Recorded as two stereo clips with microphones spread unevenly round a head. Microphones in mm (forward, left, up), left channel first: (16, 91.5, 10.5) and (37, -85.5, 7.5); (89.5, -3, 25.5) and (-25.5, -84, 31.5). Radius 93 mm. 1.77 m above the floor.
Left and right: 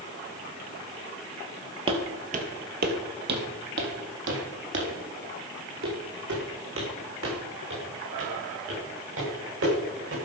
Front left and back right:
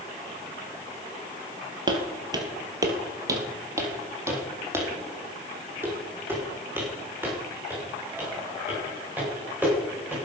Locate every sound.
1.9 s footsteps: 120° right, 2 m; by 10.1 s 65° right, 10 m